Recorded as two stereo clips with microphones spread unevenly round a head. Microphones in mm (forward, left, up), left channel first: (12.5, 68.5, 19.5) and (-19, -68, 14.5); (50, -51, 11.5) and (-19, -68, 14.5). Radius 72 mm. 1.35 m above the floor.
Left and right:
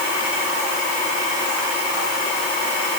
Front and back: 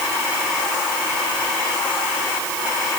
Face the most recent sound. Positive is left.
No sound to turn to.